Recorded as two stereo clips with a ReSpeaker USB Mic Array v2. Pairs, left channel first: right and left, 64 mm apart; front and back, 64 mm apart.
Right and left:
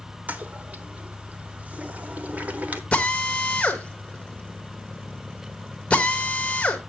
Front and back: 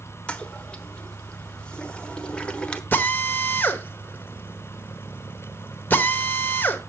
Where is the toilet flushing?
55° left, 0.8 m.